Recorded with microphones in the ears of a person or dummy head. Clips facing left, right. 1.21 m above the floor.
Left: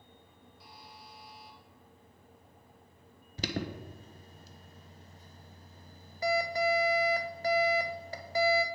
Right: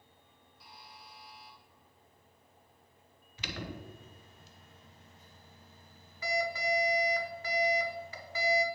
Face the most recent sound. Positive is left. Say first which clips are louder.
# left 6 dB
turn(degrees=35)  # may be behind; listen again after turning